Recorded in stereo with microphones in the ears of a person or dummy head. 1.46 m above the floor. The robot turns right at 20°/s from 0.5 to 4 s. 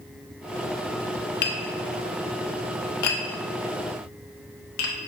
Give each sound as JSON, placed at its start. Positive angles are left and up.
{"t": 1.4, "sound": "tapping", "side_deg": 55, "distance_m": 0.6}